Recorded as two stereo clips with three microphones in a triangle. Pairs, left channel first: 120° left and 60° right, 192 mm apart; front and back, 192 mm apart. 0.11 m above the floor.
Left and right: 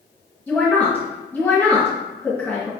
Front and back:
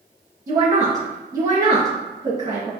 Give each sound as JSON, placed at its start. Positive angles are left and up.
{"t": 0.5, "sound": "a woman speaking", "azimuth_deg": 175, "distance_m": 1.7}